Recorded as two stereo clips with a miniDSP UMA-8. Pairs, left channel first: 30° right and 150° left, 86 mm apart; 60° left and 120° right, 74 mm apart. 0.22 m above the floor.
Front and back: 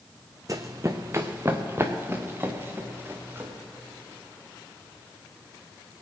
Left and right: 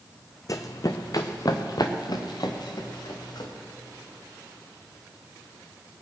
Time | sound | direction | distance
0.5 | running footsteps | 100° left | 0.9 m